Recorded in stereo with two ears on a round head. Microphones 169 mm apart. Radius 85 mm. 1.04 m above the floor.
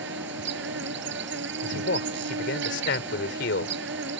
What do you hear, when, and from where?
0.0 s an insect: 65° right (ahead or behind)
1.6 s a man speaking: 60° left (ahead or behind)